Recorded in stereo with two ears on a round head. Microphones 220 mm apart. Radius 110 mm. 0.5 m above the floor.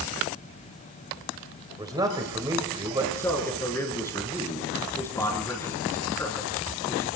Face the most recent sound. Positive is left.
turn(degrees=10)  # may be behind; listen again after turning